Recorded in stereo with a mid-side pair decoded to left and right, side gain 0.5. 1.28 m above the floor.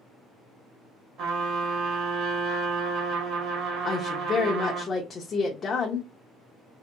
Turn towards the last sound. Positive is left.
turn(degrees=45)